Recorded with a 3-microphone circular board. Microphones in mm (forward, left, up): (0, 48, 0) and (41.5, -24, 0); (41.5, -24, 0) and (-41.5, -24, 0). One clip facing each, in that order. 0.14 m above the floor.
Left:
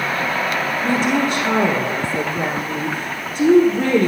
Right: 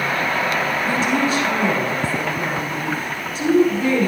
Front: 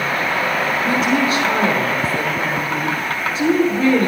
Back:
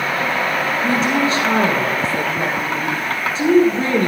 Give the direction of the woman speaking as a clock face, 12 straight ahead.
8 o'clock.